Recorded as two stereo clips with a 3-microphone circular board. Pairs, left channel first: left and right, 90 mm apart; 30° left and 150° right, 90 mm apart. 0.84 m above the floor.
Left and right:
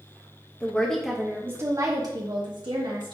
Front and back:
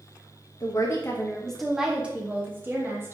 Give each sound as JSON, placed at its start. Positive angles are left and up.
{"t": 0.6, "sound": "a woman speaking", "azimuth_deg": 35, "distance_m": 1.0}